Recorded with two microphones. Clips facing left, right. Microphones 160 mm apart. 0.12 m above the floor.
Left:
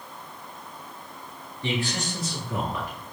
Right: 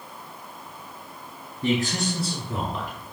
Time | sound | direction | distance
1.6 | a man speaking | 45° right (ahead or behind) | 2 m